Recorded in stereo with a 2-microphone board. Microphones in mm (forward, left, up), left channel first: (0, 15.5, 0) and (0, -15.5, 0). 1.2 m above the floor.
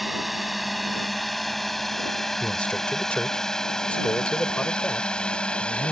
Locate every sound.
0.0 s a drone: 10° right (ahead or behind); by 5.9 s 30° left (ahead or behind)
2.4 s a man speaking: 35° left (ahead or behind)